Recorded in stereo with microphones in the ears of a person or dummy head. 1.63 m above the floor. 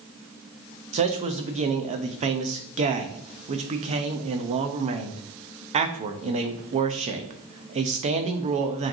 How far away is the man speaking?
About 0.6 m.